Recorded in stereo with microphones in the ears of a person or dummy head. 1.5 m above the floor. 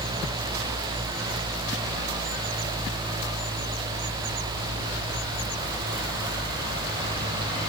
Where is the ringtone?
No ringtone in this recording.